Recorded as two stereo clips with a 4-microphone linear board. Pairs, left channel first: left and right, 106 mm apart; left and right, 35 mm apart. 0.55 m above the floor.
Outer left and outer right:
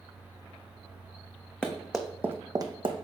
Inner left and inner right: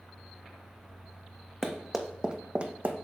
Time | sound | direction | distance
1.6 | running footsteps | 10° left (ahead or behind) | 1.4 m